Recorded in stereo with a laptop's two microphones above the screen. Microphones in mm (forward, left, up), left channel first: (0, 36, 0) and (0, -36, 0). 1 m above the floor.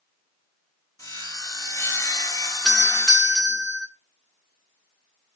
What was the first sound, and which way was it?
Sawing, 50° left (ahead or behind).